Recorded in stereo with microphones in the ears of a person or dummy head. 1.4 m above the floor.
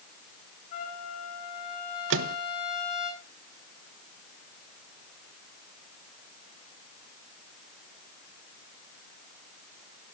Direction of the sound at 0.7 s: 35° left (ahead or behind).